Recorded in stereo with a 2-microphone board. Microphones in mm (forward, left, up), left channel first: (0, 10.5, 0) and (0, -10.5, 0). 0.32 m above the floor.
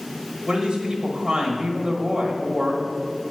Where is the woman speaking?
30° right (ahead or behind), 1.4 m.